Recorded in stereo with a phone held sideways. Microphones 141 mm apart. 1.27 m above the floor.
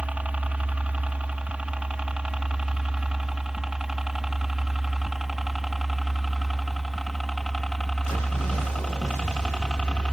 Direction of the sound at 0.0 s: 10° right (ahead or behind).